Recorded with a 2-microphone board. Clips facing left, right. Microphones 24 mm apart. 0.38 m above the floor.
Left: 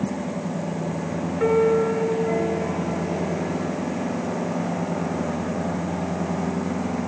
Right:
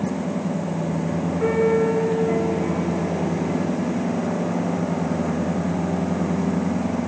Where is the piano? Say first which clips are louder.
Left 1 dB; 30° left (ahead or behind), 1.5 m.